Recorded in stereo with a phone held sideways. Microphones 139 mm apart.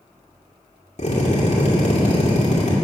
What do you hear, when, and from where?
1.0 s a drill: 55° left (ahead or behind), 2.5 m